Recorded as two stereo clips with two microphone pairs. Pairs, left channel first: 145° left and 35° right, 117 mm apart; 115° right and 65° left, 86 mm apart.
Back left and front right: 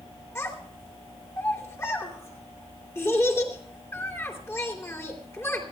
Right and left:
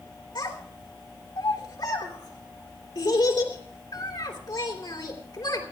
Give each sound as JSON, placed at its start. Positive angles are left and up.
{"t": 0.3, "sound": "a child speaking", "azimuth_deg": -150, "distance_m": 3.0}